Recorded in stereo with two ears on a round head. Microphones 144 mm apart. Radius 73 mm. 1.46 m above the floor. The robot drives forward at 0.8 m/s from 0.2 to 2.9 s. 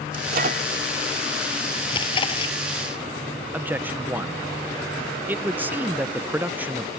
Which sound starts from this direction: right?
A microwave, at 0.1 s.